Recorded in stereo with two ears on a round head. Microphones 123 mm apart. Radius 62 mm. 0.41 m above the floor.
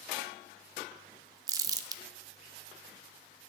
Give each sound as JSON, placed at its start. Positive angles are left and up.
{"t": 1.5, "sound": "crumpling", "side_deg": -25, "distance_m": 0.5}